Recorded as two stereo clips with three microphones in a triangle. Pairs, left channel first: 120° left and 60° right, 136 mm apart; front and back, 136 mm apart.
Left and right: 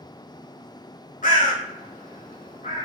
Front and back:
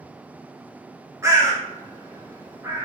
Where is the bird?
115° left, 0.8 m.